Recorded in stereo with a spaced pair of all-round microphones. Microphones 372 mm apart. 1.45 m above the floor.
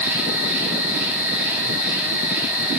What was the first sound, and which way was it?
An insect, 5° right (ahead or behind).